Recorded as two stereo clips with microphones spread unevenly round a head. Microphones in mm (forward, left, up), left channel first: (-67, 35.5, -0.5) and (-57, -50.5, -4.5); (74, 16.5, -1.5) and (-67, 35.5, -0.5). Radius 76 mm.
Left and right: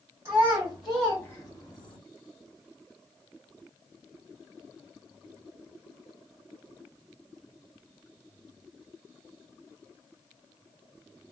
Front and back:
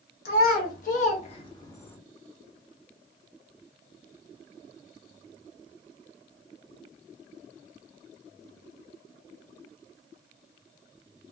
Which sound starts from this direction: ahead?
A child speaking, at 0.2 s.